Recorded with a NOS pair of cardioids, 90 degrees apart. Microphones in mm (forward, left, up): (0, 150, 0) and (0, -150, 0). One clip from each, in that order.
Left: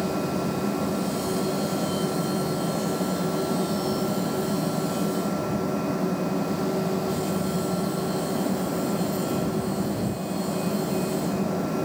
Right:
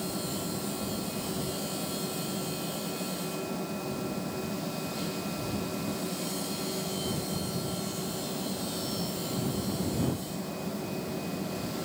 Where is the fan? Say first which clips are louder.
Left 8 dB; 65° left.